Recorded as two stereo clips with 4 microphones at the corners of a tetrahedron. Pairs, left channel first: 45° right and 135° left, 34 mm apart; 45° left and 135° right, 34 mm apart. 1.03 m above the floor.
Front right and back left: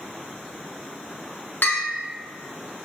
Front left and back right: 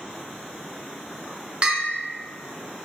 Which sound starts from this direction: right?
A bell, at 1.6 s.